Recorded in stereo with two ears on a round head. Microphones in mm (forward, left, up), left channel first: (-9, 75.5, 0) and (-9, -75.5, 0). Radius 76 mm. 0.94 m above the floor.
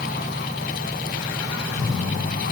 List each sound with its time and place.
Only background noise.